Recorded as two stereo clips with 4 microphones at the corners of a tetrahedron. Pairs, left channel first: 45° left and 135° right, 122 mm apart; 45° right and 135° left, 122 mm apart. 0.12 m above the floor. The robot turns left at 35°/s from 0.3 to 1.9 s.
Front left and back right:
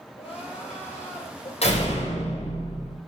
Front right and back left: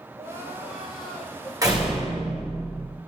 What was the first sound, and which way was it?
Crying, 70° left.